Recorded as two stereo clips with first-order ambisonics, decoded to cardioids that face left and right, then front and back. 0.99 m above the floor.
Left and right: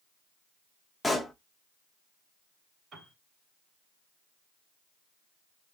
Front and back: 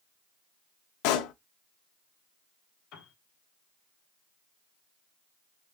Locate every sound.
1.0 s a pop: 5° left, 0.6 m
2.9 s a piano: 25° right, 2.5 m